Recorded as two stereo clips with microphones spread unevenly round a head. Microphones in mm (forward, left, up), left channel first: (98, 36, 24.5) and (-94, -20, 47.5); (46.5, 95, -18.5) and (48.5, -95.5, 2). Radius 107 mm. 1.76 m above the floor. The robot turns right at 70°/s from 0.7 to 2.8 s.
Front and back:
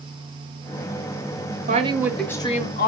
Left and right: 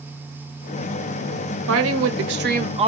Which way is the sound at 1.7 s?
110° right.